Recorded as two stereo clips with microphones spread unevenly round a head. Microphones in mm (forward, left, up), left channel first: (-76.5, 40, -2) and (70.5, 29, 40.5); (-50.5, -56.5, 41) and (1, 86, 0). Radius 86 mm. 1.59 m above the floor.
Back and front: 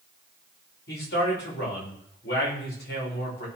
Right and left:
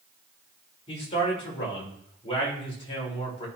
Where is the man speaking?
165° right, 6.5 m.